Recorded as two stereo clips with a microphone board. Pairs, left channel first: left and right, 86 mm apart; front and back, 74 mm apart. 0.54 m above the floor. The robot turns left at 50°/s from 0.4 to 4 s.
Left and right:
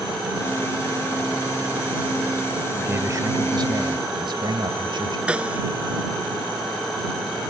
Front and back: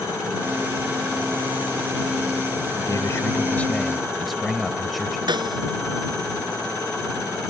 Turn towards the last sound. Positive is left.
turn(degrees=-170)